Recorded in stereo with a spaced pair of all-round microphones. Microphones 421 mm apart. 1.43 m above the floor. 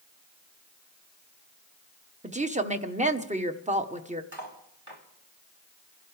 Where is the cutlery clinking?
65° right (ahead or behind), 2.5 m.